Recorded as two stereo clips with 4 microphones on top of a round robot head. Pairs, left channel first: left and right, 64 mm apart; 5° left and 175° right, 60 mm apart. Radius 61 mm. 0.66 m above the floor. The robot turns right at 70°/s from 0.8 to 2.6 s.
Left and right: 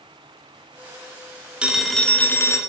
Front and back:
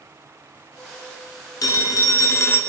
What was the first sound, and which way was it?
A phone ringing, 20° right.